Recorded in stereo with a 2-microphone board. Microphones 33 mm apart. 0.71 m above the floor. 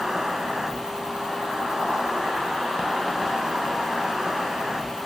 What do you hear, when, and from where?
0.0 s an insect: 20° right (ahead or behind), 1.1 m